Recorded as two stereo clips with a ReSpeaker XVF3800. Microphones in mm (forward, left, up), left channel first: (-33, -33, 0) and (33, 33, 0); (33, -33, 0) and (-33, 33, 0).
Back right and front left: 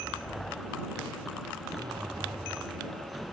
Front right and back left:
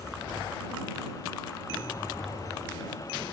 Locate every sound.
1.7 s a zipper: 5° left